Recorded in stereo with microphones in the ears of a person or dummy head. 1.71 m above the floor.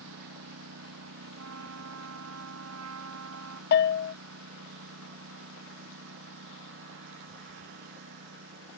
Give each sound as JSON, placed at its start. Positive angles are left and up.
{"t": 0.0, "sound": "a lawn mower", "side_deg": -80}
{"t": 1.4, "sound": "a trumpet", "side_deg": -80}
{"t": 3.7, "sound": "a bell", "side_deg": 55}